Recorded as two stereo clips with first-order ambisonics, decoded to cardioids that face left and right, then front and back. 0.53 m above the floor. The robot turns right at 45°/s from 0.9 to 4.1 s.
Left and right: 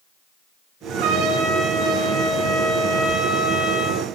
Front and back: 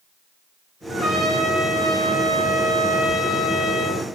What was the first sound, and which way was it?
A trumpet, 105° right.